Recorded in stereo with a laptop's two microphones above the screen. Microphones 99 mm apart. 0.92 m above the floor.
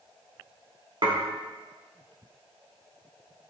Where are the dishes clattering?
60° right (ahead or behind), 1.9 m.